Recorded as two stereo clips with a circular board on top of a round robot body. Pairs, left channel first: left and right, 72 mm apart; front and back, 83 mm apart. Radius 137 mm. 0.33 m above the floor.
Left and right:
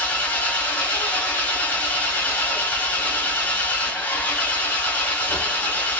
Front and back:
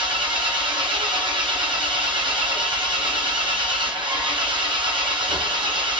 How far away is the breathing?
I don't hear breathing.